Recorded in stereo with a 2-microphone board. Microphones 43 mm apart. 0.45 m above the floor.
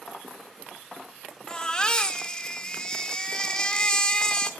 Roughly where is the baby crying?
Centre.